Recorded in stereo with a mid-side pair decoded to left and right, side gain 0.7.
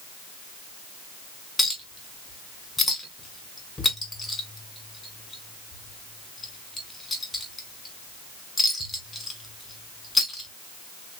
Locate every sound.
1.6 s a clink: 15° left, 2.0 m